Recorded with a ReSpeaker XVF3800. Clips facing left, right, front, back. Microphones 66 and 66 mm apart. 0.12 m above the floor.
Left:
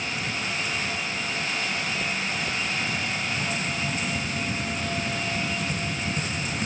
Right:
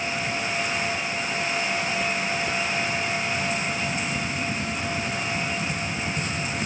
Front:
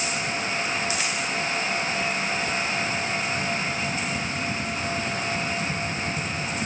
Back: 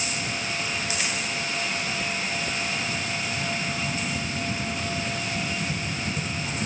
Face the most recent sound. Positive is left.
No sound to turn to.